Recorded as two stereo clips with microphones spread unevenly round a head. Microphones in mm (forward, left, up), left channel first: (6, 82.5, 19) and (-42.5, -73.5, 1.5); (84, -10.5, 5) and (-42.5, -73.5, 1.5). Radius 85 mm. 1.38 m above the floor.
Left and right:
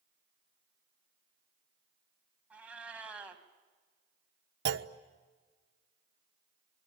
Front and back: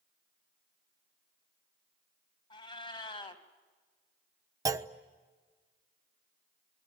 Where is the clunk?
85° right, 1.1 m.